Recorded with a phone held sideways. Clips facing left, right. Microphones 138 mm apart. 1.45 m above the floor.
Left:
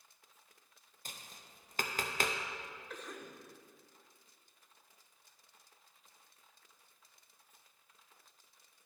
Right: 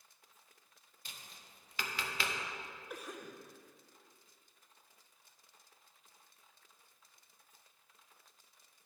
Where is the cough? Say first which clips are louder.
Right 2 dB; 10° right (ahead or behind), 0.9 m.